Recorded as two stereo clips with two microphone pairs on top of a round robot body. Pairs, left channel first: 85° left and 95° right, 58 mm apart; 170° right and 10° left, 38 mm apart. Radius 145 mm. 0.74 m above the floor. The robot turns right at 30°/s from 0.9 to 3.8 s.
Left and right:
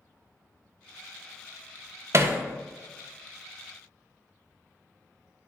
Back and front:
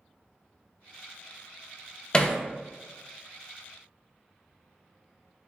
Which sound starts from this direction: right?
Hammering, at 2.1 s.